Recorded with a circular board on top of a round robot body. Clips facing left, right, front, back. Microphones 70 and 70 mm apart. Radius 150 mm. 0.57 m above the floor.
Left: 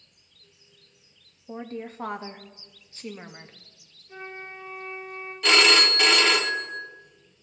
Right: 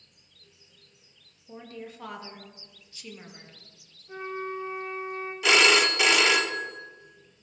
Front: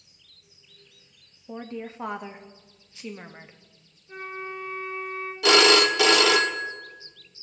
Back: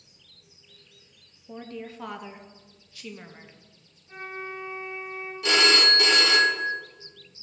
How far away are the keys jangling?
No keys jangling in this recording.